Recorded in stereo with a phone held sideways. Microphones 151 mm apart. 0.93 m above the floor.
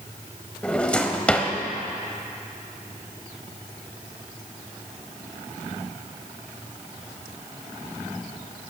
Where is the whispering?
No whispering in this recording.